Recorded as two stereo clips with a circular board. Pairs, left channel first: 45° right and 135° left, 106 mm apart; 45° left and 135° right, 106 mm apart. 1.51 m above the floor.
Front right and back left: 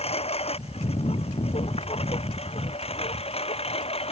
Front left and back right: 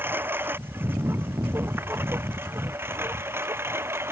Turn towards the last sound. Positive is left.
turn(degrees=-70)